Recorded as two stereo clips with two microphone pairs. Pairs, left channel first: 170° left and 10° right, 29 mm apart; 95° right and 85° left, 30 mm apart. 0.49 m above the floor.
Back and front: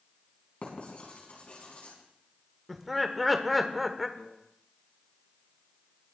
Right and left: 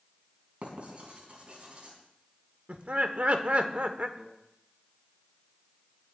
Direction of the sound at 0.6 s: 125° left.